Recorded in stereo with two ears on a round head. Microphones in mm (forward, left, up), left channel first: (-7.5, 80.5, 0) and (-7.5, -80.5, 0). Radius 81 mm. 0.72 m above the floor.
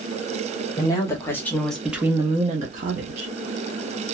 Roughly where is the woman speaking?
Left.